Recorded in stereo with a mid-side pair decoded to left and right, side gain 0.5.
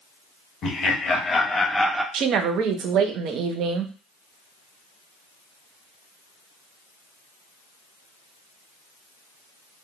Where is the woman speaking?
70° right, 0.5 m.